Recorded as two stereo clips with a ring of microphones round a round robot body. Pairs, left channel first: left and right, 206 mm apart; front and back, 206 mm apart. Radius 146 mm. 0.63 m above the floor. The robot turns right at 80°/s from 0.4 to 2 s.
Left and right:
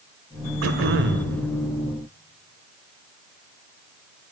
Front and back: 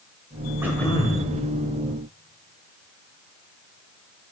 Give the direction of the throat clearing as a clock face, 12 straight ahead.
3 o'clock.